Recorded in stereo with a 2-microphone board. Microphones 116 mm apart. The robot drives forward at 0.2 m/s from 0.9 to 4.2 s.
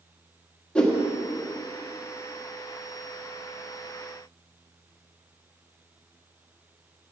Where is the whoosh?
10° left (ahead or behind), 1.5 m.